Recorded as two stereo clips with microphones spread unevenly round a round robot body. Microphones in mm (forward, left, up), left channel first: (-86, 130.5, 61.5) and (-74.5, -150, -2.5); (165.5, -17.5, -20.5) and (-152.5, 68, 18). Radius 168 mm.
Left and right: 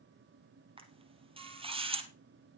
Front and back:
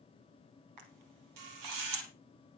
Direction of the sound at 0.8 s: 160° right.